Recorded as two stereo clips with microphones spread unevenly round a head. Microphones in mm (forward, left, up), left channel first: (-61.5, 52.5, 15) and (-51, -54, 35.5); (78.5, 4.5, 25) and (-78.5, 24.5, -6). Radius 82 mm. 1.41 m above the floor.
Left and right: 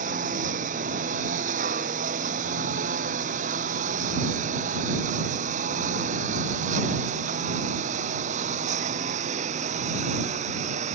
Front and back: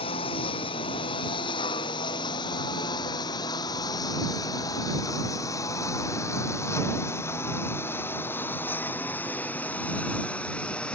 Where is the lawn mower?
65° right; by 11.0 s 90° right.